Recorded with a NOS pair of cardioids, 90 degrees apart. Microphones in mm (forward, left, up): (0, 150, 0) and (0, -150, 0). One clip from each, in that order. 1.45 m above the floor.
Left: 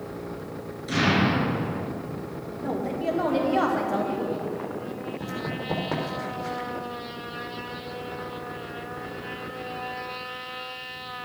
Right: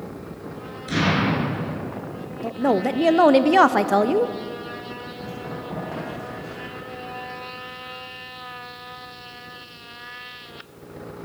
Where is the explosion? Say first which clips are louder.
Right 1 dB; 20° right, 5 m.